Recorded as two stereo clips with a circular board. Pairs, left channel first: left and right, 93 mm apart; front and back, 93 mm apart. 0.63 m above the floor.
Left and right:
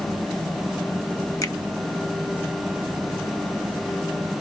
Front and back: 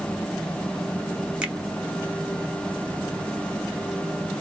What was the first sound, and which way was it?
A finger snap, 110° left.